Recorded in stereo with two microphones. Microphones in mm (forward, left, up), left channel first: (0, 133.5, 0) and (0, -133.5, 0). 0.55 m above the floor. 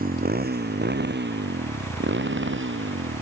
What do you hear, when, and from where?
0.0 s a motorcycle: 30° right (ahead or behind); by 3.2 s 45° right (ahead or behind)